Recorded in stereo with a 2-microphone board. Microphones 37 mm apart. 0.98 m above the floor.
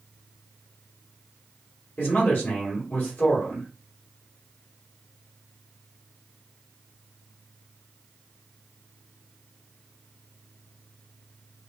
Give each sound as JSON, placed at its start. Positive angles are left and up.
{"t": 2.0, "sound": "a man speaking", "side_deg": 50, "distance_m": 2.0}